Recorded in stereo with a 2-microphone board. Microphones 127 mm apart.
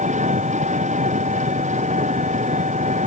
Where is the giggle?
I don't hear a giggle.